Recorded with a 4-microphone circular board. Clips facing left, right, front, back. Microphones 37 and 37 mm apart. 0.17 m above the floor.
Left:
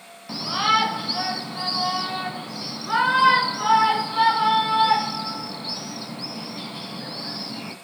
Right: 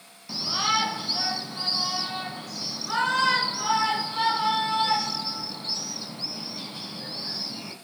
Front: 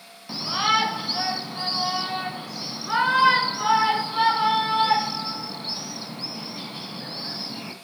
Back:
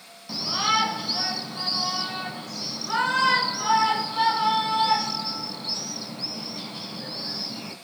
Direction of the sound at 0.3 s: 55° left.